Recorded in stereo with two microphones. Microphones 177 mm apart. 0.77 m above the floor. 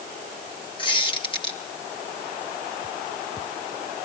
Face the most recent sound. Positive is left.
turn(degrees=30)  # may be behind; listen again after turning